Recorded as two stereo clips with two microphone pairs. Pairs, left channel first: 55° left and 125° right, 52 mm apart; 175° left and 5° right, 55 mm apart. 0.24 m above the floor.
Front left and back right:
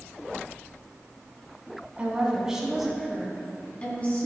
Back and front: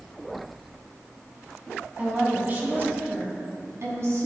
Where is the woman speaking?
65° right, 2.5 m; by 4.3 s 5° left, 3 m.